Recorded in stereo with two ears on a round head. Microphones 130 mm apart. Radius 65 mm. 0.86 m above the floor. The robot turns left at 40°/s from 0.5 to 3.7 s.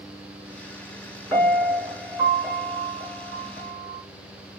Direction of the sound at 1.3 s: Straight ahead.